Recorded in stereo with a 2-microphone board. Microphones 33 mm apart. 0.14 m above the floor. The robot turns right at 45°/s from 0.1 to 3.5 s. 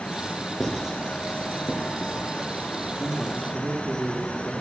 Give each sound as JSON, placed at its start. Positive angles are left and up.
{"t": 0.6, "sound": "writing", "side_deg": -5, "distance_m": 3.5}
{"t": 3.0, "sound": "a man speaking", "side_deg": 50, "distance_m": 3.0}